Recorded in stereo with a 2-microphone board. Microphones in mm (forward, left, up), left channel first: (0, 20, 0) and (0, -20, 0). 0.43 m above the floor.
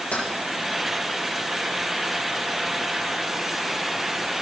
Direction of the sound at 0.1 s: 40° left (ahead or behind).